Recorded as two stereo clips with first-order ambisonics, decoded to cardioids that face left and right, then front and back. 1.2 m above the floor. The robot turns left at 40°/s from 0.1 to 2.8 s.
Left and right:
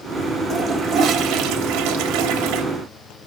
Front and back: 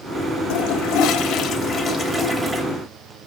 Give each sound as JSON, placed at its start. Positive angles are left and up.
{"t": 0.5, "sound": "a toilet flushing", "azimuth_deg": -10, "distance_m": 1.5}